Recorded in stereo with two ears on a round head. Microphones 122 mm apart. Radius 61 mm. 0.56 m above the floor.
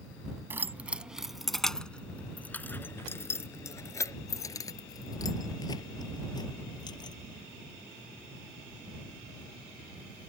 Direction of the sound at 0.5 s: 15° right (ahead or behind).